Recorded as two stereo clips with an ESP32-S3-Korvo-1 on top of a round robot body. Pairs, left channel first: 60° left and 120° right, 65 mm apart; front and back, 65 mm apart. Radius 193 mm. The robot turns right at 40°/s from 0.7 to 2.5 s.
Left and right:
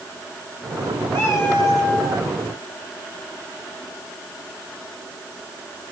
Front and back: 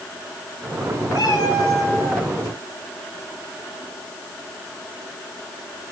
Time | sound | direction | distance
1.1 | a cat meowing | 5° right | 4.5 m